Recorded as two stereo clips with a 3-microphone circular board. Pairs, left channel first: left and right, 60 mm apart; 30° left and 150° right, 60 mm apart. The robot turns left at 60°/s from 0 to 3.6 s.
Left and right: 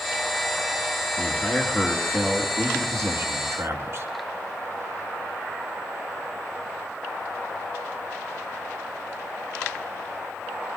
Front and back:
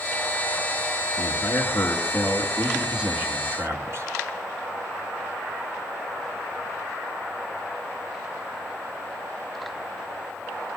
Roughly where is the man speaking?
Ahead left.